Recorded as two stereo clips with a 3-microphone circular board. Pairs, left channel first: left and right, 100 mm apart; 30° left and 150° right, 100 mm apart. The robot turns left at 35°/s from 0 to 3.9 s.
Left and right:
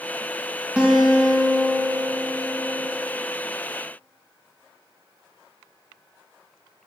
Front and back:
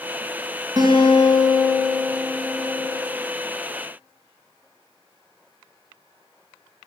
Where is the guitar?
165° right, 2 m; by 2.9 s 120° left, 2 m.